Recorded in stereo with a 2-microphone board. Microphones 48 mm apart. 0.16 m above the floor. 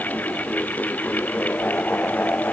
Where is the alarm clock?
I don't hear an alarm clock.